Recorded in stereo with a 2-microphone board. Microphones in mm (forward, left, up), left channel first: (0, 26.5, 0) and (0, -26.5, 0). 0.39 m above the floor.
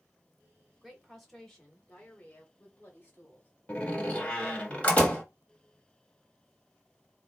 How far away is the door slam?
About 1.4 m.